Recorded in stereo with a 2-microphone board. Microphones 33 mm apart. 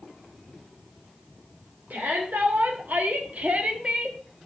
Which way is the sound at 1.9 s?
80° right.